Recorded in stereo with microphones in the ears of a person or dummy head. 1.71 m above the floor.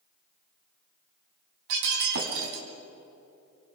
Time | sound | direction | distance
1.7 | breaking glass | 60° right (ahead or behind) | 3 m